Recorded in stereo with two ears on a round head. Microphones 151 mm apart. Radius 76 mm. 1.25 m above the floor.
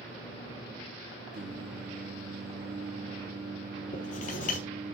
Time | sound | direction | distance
1.3 | singing | 45° right (ahead or behind) | 5 m
3.9 | writing | 55° left (ahead or behind) | 4 m